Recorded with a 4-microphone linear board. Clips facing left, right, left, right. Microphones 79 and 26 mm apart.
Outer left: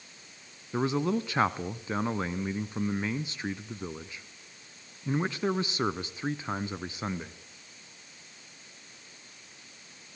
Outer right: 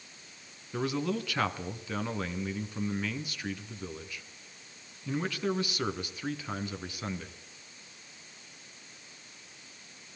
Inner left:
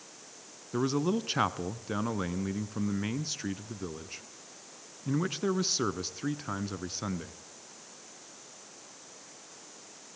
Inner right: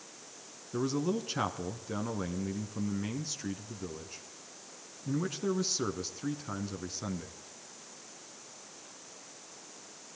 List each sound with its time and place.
0.7 s a man speaking: 25° left (ahead or behind), 1.2 m